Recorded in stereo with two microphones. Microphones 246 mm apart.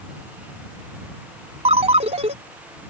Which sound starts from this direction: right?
A ringtone, at 1.6 s.